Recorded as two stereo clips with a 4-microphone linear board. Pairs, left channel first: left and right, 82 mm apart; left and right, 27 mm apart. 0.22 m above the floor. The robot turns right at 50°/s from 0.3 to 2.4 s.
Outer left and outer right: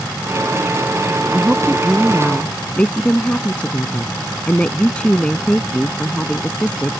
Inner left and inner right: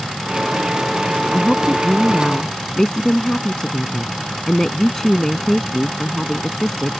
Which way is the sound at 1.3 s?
35° right.